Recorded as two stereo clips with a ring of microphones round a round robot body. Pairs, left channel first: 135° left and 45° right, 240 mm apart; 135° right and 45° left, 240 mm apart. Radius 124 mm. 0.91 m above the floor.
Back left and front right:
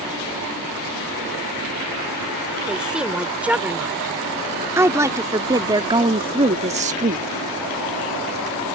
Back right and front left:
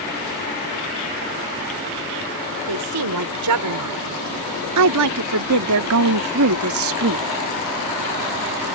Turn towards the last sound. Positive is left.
turn(degrees=10)